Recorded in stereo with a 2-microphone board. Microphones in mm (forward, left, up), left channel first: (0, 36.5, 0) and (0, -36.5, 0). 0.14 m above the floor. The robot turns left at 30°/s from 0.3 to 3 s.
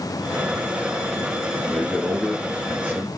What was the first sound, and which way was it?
A man speaking, 15° left.